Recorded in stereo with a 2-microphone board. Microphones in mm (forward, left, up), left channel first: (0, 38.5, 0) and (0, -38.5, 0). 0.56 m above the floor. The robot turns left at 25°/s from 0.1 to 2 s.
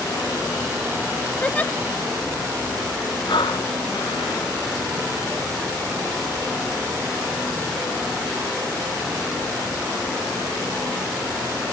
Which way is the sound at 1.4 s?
15° left (ahead or behind).